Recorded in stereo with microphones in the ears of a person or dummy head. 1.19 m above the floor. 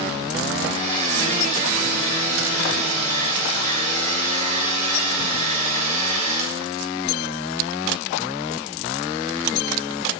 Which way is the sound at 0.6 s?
40° right (ahead or behind).